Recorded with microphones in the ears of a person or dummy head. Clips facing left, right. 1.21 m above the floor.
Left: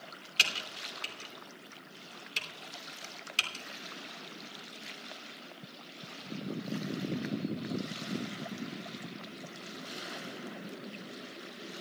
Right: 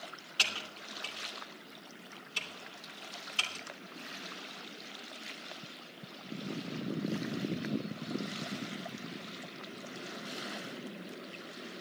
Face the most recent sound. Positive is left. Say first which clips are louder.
# left 1 dB
turn(degrees=25)  # may be behind; listen again after turning